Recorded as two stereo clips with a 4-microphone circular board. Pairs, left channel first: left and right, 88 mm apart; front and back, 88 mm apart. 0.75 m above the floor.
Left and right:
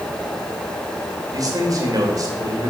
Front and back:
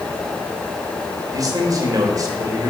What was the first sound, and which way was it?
A man speaking, 135° right.